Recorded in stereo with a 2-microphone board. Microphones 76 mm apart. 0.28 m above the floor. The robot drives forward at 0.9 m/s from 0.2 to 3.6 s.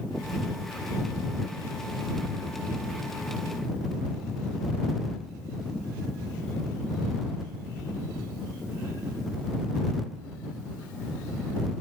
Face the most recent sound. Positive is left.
No sound to turn to.